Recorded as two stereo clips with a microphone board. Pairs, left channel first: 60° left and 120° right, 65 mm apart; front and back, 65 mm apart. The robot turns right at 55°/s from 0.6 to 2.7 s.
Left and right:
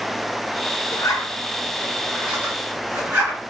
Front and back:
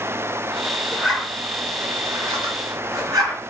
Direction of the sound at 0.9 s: 90° left.